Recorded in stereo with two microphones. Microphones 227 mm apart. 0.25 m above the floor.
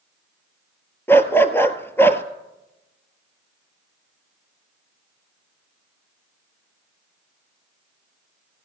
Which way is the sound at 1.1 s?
10° left (ahead or behind).